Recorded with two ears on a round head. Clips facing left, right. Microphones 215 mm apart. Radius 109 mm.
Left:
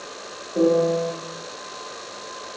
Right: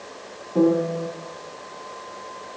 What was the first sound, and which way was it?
A piano, 80° right.